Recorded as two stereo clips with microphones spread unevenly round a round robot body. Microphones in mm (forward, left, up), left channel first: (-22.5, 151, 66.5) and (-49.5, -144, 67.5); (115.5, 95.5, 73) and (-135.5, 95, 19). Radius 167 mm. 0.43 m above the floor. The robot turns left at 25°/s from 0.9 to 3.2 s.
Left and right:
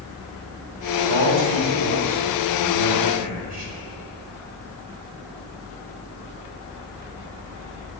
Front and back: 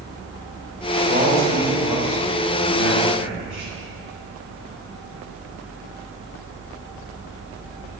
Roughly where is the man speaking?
Right.